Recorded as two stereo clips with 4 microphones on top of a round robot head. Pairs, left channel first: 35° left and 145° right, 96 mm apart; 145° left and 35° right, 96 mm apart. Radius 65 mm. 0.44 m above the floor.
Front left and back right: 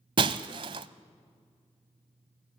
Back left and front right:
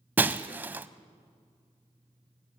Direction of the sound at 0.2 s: 105° right.